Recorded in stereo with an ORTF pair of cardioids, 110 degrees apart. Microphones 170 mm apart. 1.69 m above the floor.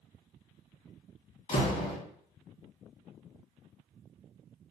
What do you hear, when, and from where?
1.5 s a door slam: 50° left, 1.9 m